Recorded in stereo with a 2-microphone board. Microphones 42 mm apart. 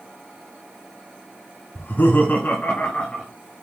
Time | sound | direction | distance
1.8 | laughter | 55° left (ahead or behind) | 1.8 m